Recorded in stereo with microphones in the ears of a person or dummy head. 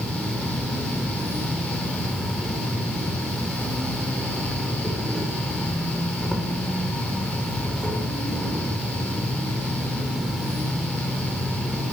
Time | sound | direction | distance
0.0 | an insect | centre (ahead or behind) | 7.5 m